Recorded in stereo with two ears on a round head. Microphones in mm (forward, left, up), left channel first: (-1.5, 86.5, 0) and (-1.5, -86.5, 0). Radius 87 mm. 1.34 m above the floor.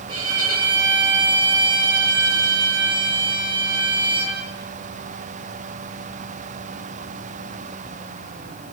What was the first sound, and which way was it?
A violin, 25° right (ahead or behind).